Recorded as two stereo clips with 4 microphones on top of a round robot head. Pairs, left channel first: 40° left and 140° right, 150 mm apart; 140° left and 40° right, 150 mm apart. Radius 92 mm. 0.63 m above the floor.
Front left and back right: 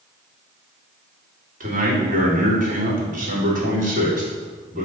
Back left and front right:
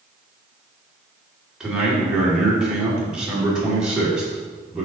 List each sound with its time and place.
1.6 s a man speaking: 125° right, 2 m